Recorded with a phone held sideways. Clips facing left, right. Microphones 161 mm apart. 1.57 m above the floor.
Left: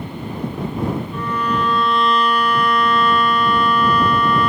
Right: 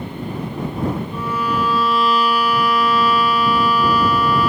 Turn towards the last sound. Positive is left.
turn(degrees=-5)  # may be behind; listen again after turning